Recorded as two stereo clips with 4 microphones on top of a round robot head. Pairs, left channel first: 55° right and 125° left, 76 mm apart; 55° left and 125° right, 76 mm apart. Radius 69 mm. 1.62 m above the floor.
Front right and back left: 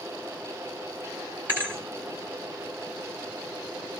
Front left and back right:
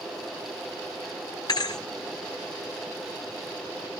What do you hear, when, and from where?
1.5 s a thud: 70° left, 1.3 m